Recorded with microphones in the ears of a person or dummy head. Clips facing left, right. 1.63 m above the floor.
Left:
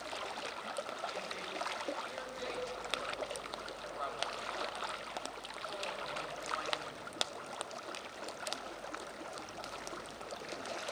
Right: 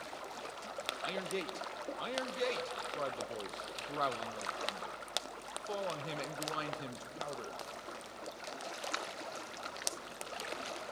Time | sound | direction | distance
1.0 | a man speaking | 60° right (ahead or behind) | 1.3 m